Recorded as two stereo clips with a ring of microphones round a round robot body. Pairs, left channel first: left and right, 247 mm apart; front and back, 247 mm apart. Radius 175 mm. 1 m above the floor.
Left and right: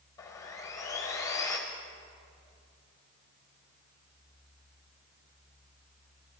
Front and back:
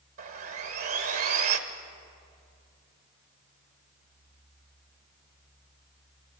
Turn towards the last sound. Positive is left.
turn(degrees=170)